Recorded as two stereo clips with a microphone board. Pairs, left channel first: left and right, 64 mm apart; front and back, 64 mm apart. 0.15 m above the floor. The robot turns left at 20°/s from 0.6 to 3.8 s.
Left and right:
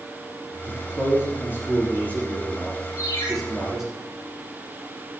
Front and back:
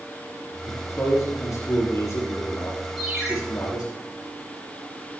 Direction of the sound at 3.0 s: 100° left.